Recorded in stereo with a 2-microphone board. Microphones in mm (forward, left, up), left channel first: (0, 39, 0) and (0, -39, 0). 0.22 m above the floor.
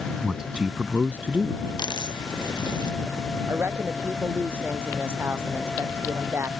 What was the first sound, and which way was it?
A man speaking, 5° right (ahead or behind).